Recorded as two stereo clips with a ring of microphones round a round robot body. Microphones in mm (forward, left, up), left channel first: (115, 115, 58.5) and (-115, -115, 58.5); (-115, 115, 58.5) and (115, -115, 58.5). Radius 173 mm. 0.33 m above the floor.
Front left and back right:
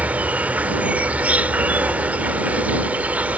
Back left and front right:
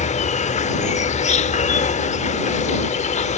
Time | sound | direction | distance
0.0 | an insect | 150° left | ?